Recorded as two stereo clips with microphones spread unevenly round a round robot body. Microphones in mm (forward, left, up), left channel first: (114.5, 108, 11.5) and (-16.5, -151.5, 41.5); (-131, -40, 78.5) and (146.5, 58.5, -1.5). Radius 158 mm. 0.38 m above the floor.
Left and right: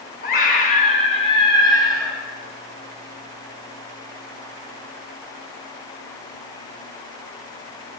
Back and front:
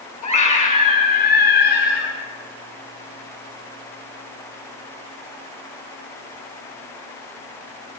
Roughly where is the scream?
Behind left.